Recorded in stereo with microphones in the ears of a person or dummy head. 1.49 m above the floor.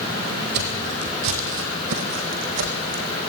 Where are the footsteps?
60° right (ahead or behind), 3.5 m; by 3.0 s 55° right (ahead or behind), 4.5 m.